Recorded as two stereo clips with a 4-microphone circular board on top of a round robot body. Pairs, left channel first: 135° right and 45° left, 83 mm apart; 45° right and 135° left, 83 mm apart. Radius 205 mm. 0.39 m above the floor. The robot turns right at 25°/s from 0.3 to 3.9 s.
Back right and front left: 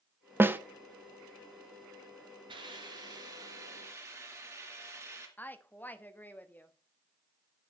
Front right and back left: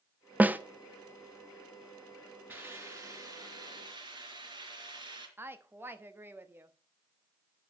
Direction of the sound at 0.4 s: 80° left.